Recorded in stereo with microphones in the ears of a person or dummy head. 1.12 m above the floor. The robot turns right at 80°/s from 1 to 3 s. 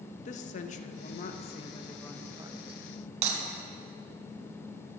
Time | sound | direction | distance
0.2 | a woman speaking | 90° left | 0.7 m
3.2 | breaking glass | 40° right (ahead or behind) | 2.5 m